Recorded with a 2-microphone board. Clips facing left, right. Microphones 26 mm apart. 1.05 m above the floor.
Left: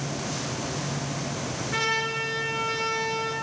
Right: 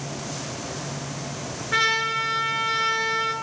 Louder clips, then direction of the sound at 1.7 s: Right 5 dB; 50° right (ahead or behind).